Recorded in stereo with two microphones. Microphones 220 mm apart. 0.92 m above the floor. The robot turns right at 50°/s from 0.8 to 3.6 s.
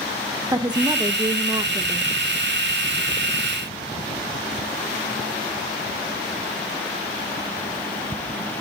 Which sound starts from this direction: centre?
A woman speaking, at 0.5 s.